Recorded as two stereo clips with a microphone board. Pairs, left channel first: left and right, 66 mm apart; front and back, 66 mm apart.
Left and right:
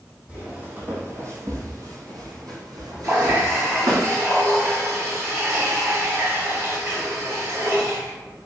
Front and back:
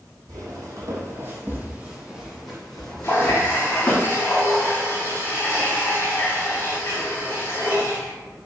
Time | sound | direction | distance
0.3 | footsteps | 160° right | 1.5 m
3.0 | a running tap | 55° right | 1.7 m